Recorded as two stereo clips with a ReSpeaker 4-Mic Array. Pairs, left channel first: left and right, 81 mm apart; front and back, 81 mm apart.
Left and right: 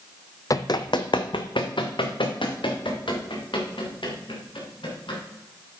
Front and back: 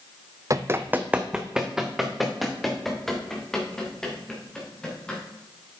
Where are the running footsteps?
135° left, 0.5 m; by 5.2 s 80° left, 3.5 m.